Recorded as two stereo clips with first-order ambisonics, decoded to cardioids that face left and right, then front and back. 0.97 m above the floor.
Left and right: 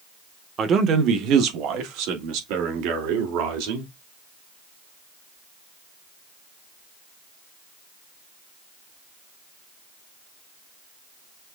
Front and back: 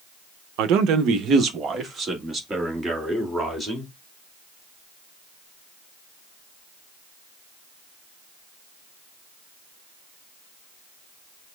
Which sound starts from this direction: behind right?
A man speaking, at 0.6 s.